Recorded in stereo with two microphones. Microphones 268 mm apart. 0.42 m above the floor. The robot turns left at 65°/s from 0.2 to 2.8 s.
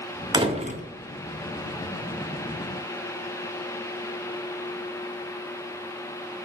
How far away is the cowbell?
I don't hear a cowbell.